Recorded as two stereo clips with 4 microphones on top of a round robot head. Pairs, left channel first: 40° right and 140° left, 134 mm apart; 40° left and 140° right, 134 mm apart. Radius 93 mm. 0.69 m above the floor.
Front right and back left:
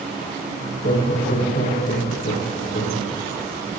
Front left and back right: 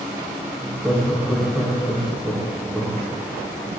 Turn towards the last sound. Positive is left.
turn(degrees=-50)